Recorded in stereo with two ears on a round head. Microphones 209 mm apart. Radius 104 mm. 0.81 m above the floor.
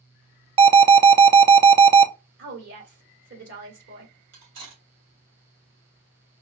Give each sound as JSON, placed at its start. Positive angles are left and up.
{"t": 0.6, "sound": "an alarm", "side_deg": -25, "distance_m": 0.5}
{"t": 2.4, "sound": "a woman speaking", "side_deg": -50, "distance_m": 2.5}
{"t": 4.3, "sound": "cutlery clinking", "side_deg": -55, "distance_m": 2.5}